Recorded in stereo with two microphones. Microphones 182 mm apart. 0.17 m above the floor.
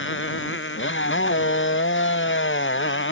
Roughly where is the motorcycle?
Left.